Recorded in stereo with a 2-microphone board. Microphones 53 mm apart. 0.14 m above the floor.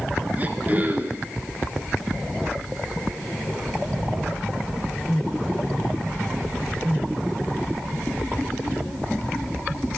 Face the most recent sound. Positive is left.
turn(degrees=-30)  # may be behind; listen again after turning